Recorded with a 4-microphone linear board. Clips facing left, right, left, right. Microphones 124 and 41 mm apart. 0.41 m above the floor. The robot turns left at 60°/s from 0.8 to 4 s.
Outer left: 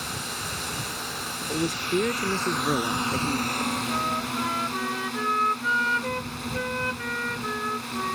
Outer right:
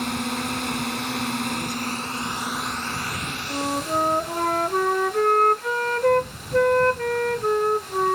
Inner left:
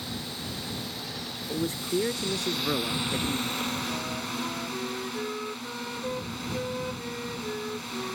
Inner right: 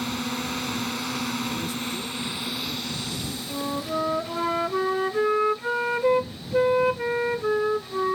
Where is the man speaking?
145° left; by 3.4 s 30° left.